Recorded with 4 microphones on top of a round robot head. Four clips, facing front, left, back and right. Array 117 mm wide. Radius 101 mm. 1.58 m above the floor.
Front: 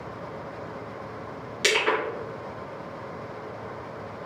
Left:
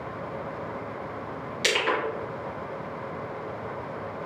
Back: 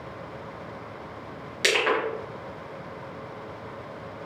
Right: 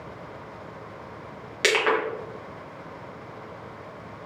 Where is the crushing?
100° right, 1.1 m.